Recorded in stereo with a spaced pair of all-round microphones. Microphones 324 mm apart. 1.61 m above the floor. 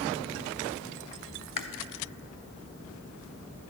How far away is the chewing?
About 0.5 m.